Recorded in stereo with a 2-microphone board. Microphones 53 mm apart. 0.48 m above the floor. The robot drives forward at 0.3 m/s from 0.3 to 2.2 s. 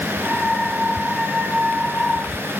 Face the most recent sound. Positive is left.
No sound to turn to.